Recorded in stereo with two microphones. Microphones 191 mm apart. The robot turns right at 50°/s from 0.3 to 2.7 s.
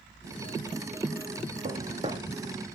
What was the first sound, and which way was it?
Footsteps, 50° right (ahead or behind).